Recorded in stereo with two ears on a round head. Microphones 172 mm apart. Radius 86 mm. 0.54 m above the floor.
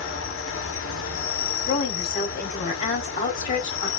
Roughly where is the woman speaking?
Left.